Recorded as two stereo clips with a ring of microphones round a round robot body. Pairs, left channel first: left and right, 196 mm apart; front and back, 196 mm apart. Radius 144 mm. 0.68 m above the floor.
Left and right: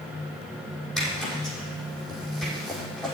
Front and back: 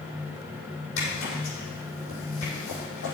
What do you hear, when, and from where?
1.0 s a zipper: 5° left, 6.5 m